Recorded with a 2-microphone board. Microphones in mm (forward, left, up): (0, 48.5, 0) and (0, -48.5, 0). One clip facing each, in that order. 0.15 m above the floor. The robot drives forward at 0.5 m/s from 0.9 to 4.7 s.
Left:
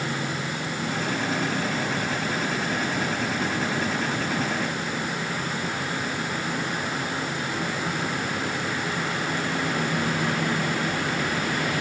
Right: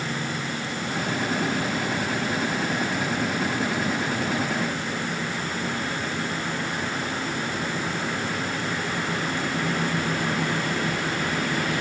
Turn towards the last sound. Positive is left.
No sound to turn to.